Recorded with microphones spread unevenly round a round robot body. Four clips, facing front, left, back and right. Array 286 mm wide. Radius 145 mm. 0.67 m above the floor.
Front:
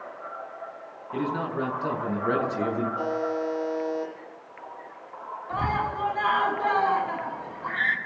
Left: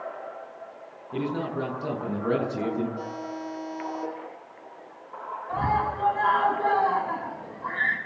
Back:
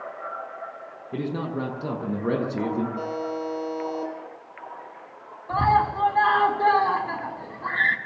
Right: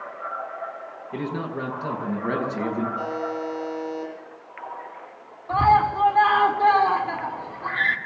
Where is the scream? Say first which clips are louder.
Right 8 dB, back 7 dB; 140° right, 5 m.